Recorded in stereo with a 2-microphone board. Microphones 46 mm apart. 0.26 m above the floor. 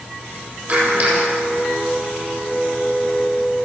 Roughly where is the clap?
Right.